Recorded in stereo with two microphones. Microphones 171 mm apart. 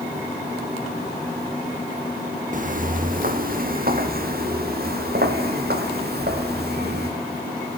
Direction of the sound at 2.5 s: 50° right (ahead or behind).